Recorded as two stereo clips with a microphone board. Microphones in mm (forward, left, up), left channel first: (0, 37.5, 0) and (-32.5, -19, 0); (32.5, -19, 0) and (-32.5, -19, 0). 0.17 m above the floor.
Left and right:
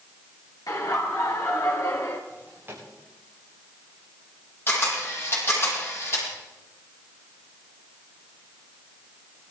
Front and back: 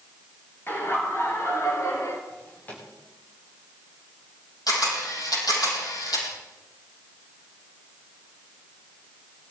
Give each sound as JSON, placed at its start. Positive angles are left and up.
{"t": 0.7, "sound": "laughter", "azimuth_deg": 55, "distance_m": 4.0}
{"t": 2.3, "sound": "a drawer", "azimuth_deg": -65, "distance_m": 7.5}
{"t": 4.7, "sound": "a camera shutter", "azimuth_deg": 5, "distance_m": 7.5}